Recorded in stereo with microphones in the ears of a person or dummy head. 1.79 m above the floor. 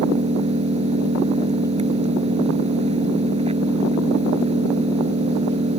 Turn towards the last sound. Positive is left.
turn(degrees=-40)  # may be behind; listen again after turning